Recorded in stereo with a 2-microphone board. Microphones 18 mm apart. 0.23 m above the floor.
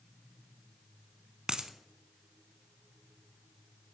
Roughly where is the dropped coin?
Right.